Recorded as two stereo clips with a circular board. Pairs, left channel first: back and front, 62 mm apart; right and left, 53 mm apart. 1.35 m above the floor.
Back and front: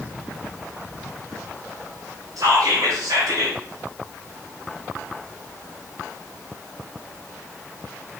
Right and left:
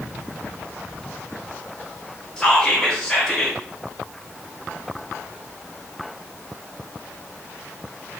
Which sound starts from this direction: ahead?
Whispering, at 2.4 s.